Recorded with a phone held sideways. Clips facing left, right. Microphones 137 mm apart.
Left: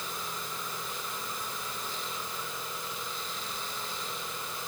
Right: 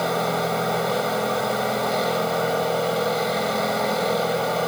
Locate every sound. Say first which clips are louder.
0.0 s a machine running: right 18 dB; 85° right